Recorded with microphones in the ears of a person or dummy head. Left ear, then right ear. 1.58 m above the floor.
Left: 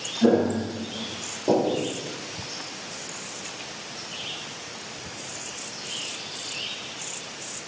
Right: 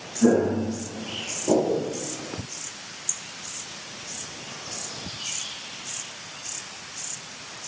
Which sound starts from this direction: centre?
Footsteps, at 0.2 s.